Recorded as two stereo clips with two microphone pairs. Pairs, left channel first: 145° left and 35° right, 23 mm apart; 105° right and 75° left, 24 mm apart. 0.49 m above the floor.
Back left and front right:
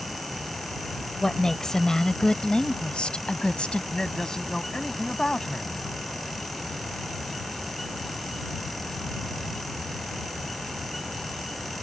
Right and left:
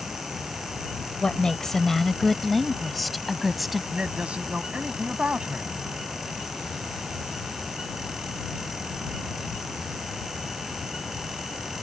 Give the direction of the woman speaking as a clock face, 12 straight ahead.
5 o'clock.